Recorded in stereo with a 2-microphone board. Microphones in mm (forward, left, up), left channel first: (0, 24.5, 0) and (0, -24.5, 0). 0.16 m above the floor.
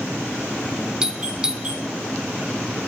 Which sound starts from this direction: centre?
A doorbell, at 1.0 s.